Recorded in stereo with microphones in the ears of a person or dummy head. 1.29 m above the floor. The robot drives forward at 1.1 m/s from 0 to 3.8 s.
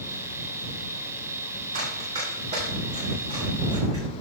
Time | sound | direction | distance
1.7 | running footsteps | 45° right (ahead or behind) | 4 m